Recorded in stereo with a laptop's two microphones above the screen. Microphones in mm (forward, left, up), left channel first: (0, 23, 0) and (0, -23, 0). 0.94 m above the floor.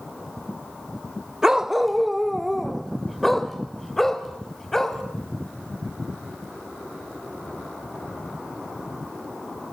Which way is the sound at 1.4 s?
10° right (ahead or behind).